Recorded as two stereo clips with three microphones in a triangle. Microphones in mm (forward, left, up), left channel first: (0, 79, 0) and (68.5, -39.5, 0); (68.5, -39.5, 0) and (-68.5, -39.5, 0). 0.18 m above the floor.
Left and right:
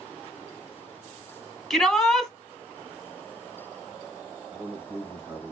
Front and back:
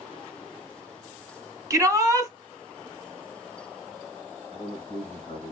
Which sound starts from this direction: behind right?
A shout, at 1.7 s.